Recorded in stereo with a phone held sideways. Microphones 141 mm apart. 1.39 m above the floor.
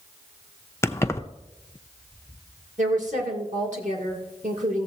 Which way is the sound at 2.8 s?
65° right (ahead or behind).